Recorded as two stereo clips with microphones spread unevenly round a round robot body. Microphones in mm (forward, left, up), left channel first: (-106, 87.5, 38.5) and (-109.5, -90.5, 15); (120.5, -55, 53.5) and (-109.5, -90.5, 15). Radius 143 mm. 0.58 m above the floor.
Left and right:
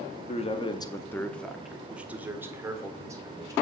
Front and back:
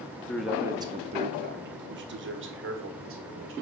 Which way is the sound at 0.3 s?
105° left.